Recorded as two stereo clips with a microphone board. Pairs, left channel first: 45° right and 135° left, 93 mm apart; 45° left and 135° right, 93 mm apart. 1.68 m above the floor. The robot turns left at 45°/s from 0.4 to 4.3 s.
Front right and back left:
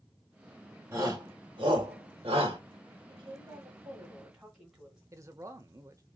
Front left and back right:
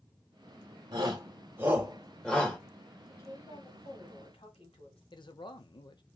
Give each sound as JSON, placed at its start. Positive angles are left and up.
{"t": 0.9, "sound": "a shout", "azimuth_deg": -160, "distance_m": 2.0}
{"t": 3.1, "sound": "a woman speaking", "azimuth_deg": 115, "distance_m": 2.5}
{"t": 5.1, "sound": "a man speaking", "azimuth_deg": 80, "distance_m": 1.0}